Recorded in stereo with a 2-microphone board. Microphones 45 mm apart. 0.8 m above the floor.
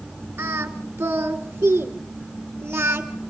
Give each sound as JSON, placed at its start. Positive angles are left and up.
{"t": 0.4, "sound": "singing", "side_deg": -75, "distance_m": 2.0}